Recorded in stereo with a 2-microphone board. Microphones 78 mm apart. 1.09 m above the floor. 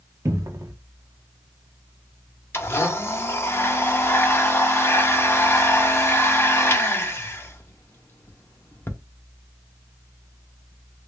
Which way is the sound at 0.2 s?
40° right (ahead or behind).